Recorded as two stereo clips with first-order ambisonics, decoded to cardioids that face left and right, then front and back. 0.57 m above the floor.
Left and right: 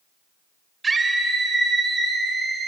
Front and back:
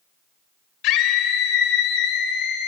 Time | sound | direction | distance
0.8 | a scream | 15° right | 3 m